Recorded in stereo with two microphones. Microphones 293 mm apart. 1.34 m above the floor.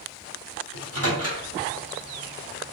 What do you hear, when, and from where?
0.7 s a microwave: 60° right (ahead or behind), 2 m